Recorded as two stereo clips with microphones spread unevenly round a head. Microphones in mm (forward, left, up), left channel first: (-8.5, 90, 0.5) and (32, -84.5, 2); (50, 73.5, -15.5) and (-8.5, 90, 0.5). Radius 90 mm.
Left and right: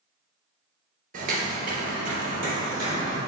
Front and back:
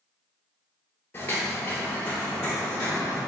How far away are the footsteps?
About 2.0 m.